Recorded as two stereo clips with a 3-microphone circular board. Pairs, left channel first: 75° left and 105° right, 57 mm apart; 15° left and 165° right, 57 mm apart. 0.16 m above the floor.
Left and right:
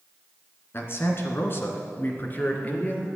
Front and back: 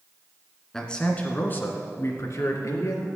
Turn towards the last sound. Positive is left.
turn(degrees=15)